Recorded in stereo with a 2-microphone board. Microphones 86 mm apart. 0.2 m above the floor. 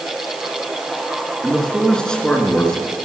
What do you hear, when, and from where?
1.4 s a man speaking: 10° left (ahead or behind), 3 m